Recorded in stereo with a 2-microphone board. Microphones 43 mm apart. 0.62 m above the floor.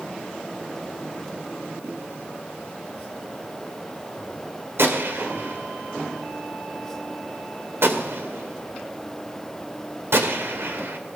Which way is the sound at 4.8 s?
70° right (ahead or behind).